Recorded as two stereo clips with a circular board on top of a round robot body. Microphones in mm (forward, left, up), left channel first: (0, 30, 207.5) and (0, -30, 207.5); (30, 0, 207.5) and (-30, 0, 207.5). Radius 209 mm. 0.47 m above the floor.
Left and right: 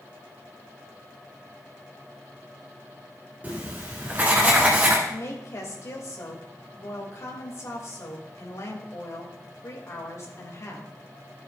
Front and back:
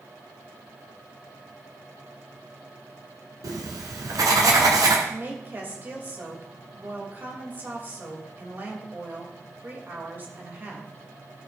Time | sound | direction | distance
3.4 | writing | 155° right | 1.2 m
5.1 | a woman speaking | 125° left | 2.5 m